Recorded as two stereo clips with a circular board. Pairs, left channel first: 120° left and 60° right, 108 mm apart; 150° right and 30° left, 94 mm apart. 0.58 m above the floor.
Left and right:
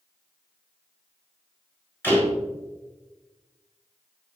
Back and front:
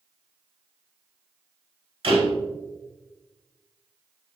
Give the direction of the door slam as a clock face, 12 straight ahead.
10 o'clock.